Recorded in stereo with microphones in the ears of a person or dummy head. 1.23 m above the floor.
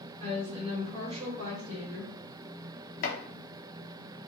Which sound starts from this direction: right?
A woman speaking, at 0.2 s.